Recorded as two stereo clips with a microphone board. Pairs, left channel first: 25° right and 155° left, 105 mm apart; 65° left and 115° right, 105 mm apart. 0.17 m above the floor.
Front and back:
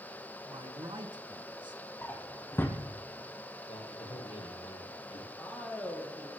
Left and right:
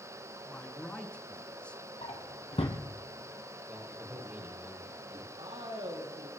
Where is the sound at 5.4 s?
100° right, 4.5 m.